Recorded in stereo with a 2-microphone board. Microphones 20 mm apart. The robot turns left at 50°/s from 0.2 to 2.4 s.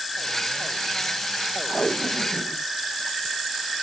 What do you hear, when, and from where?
1.7 s tape being pulled: 50° left (ahead or behind); by 3.8 s 15° left (ahead or behind)